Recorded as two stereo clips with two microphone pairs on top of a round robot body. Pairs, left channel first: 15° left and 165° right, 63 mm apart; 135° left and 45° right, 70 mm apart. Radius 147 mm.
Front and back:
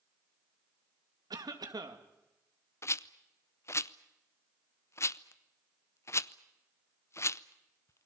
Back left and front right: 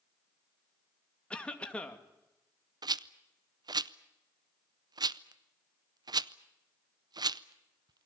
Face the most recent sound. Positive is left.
turn(degrees=-25)